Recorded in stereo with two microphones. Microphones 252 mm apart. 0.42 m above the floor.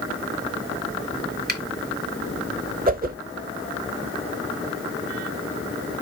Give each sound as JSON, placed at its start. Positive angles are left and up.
{"t": 1.5, "sound": "a finger snap", "side_deg": -40, "distance_m": 1.5}
{"t": 2.9, "sound": "a whoosh", "side_deg": -35, "distance_m": 0.8}